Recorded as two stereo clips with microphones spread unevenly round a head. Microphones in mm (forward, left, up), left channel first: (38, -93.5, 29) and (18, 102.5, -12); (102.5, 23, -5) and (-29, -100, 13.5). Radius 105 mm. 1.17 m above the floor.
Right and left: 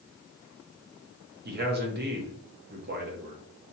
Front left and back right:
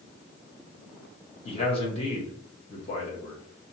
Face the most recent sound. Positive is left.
turn(degrees=100)